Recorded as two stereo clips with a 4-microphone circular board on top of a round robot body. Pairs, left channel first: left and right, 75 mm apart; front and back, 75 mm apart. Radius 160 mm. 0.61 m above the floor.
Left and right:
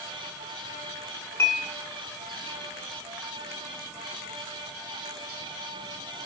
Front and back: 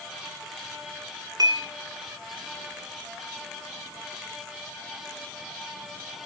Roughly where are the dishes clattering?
Behind left.